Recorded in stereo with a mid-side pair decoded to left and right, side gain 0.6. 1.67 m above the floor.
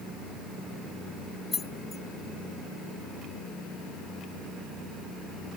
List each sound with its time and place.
1.5 s keys jangling: 25° left